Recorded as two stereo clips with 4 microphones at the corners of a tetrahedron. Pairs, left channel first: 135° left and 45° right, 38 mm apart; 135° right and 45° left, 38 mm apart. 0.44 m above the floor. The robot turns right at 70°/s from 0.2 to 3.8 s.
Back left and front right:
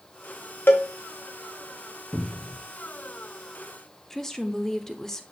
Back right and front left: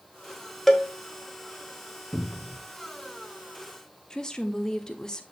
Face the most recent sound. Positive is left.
turn(degrees=-170)